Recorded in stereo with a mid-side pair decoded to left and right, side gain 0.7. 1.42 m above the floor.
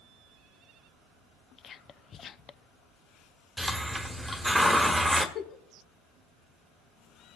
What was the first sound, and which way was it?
Whispering, 35° left.